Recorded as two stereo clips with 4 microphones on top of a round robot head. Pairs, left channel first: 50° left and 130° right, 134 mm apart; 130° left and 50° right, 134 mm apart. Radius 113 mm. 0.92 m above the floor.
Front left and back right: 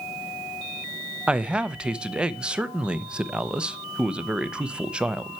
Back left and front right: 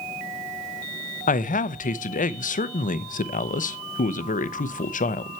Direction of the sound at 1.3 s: 145° left.